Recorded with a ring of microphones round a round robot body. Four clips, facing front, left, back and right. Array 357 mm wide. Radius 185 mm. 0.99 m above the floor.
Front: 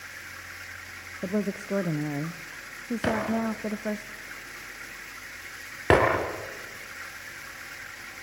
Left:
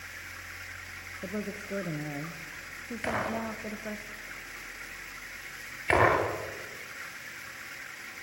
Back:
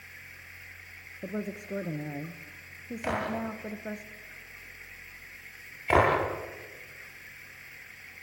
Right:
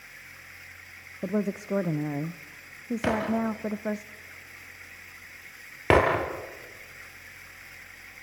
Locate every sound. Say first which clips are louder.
0.0 s running water: left 5 dB, front 8 dB; 25° left, 0.8 m
1.2 s a woman speaking: right 8 dB, front 7 dB; 50° right, 0.8 m
3.0 s breaking glass: right 5 dB, front 4 dB; 40° right, 8.5 m